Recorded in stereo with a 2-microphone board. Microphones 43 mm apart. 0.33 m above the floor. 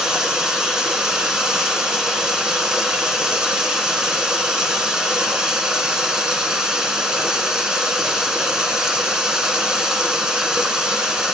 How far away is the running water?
About 1.5 m.